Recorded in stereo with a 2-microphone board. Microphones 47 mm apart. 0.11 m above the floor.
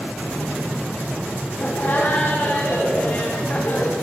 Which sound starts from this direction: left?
Laughter, at 1.6 s.